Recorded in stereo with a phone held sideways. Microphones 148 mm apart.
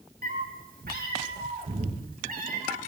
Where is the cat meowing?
70° right (ahead or behind), 2.5 m.